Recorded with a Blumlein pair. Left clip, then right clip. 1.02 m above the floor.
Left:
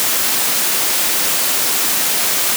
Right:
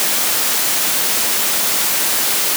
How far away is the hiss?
No hiss in this recording.